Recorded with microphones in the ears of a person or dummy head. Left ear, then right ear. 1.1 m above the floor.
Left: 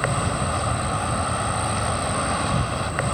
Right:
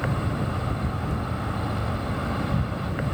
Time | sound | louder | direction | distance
0.0 | an insect | left 5 dB | 40° left (ahead or behind) | ?